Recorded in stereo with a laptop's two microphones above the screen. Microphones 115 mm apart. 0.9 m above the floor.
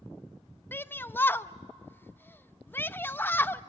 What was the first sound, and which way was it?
A shout, 20° left (ahead or behind).